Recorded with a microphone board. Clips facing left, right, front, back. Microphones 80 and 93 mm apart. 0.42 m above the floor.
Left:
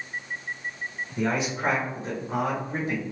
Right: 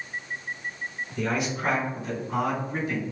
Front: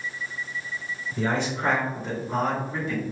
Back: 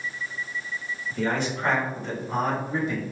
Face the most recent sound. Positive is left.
turn(degrees=115)